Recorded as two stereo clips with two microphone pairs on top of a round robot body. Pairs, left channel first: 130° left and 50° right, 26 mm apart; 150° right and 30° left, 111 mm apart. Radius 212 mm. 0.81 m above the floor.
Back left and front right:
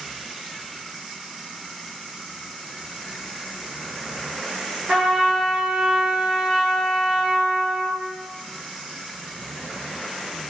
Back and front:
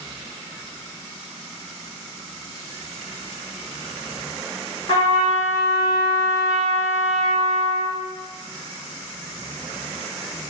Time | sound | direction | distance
4.9 | a trumpet | 85° right | 0.6 m